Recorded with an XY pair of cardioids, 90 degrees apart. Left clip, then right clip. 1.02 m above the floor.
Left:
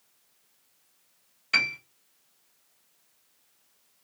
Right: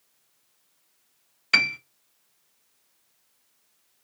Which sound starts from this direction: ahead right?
A piano, at 1.5 s.